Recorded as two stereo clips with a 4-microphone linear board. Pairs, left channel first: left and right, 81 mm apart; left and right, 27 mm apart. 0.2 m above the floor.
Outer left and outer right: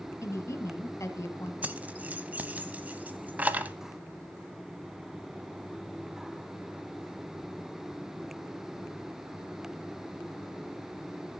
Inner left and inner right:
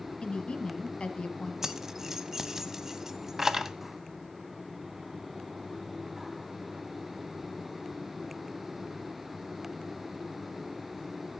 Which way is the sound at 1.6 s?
20° right (ahead or behind).